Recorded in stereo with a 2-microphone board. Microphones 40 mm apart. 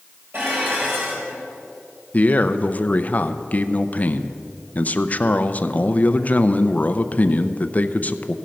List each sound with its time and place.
0.3 s dishes clattering: 75° right (ahead or behind), 3.5 m
2.1 s a man speaking: 45° left (ahead or behind), 0.6 m